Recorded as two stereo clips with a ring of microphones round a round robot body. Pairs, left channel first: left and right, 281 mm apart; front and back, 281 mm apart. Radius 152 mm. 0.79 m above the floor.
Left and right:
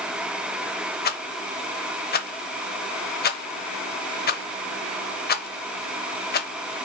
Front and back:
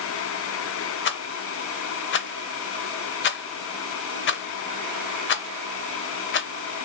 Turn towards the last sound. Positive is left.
turn(degrees=40)